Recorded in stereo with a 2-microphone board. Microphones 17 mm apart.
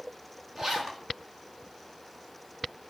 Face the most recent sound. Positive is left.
turn(degrees=-35)  # may be behind; listen again after turning